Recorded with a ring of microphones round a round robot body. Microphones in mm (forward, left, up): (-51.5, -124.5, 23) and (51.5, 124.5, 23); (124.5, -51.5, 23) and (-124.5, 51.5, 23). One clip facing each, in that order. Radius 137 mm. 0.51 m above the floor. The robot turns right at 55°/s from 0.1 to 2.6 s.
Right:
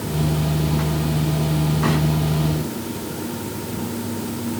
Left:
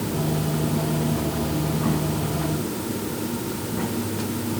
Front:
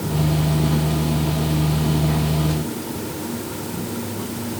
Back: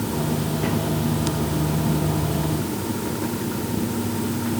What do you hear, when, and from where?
Only background noise.